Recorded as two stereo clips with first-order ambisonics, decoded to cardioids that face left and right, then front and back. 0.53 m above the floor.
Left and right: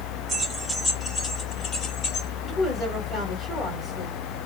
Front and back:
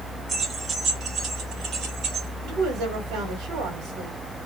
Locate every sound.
0.3 s keys jangling: 135° right, 0.7 m; by 2.3 s 135° left, 1.4 m
2.4 s a woman speaking: 175° right, 1.5 m